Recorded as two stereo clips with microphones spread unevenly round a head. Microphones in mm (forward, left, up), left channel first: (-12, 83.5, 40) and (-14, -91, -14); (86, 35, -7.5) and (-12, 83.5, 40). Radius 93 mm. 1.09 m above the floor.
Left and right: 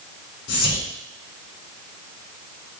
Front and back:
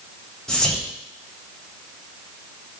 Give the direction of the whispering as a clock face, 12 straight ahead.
10 o'clock.